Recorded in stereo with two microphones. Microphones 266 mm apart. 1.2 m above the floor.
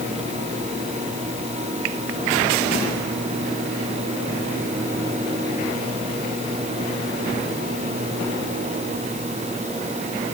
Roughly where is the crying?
I don't hear crying.